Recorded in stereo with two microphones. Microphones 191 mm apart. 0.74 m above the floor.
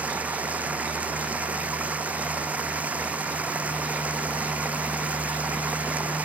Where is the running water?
10° right (ahead or behind).